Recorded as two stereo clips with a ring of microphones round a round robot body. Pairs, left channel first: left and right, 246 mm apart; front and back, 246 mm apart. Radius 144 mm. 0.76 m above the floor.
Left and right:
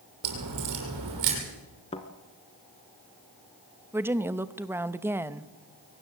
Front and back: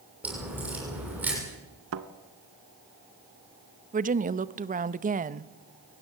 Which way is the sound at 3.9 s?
165° right.